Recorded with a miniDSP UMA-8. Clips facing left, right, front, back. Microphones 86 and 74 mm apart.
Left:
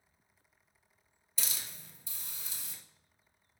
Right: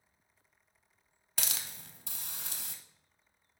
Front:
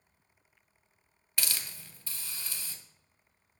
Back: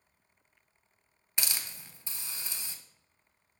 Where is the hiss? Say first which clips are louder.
Right 3 dB, even; 110° right, 0.5 m.